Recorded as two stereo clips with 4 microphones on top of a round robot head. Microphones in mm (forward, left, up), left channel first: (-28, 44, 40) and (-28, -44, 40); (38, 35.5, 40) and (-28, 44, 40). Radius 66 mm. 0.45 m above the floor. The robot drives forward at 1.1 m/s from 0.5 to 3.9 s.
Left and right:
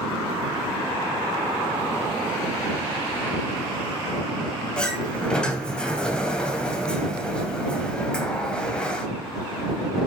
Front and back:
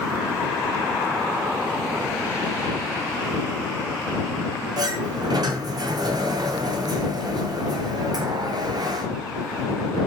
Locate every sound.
4.8 s a sliding door: 170° left, 2.5 m